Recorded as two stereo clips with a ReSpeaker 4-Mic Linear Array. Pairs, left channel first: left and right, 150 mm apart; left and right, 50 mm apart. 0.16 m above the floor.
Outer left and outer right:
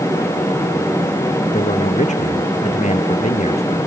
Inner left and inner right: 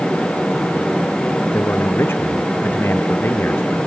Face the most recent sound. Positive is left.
turn(degrees=45)  # may be behind; listen again after turning